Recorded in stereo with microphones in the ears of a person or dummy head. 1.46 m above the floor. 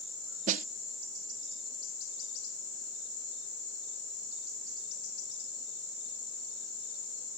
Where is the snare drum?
50° right (ahead or behind).